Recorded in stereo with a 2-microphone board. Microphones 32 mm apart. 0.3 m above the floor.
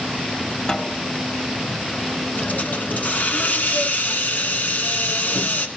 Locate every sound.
0.7 s a snare drum: 30° left (ahead or behind), 1.7 m
2.4 s a hiss: 70° left (ahead or behind), 2 m